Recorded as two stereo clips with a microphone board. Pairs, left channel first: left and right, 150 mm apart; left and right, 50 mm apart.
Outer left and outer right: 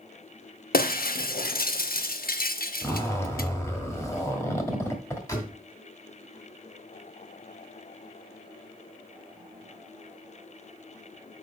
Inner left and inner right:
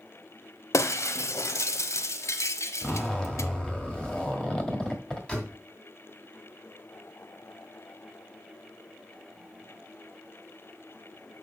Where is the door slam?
20° left (ahead or behind), 2.5 m.